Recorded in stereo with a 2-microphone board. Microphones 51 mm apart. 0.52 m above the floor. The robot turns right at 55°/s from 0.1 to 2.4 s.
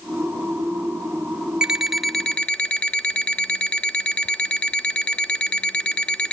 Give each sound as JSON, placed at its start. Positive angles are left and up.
{"t": 1.6, "sound": "an alarm clock", "azimuth_deg": -15, "distance_m": 0.5}